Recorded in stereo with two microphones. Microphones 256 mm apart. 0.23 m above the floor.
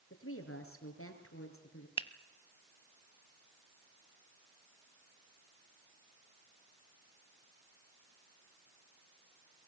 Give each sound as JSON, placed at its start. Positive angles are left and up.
{"t": 0.1, "sound": "a woman speaking", "side_deg": 60, "distance_m": 5.0}
{"t": 2.0, "sound": "a finger snap", "side_deg": 20, "distance_m": 0.8}